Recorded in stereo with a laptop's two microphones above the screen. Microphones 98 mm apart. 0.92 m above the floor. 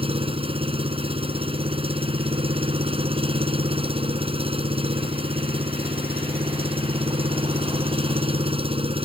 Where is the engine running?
70° right (ahead or behind).